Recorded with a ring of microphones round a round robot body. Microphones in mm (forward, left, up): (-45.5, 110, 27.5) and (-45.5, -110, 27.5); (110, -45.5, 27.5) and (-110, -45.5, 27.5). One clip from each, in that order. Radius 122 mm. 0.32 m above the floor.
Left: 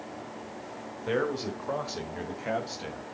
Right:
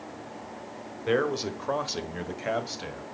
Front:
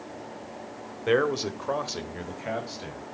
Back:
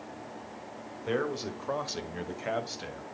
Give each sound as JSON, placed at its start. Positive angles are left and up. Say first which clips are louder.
{"t": 1.1, "sound": "a man speaking", "louder": "right 3 dB, front 7 dB", "azimuth_deg": -35, "distance_m": 1.6}